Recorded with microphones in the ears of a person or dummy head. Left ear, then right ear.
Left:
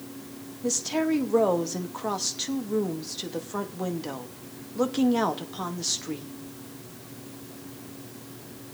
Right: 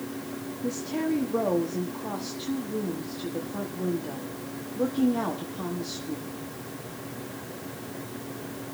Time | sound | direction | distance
0.6 | a woman speaking | 70° left (ahead or behind) | 0.9 m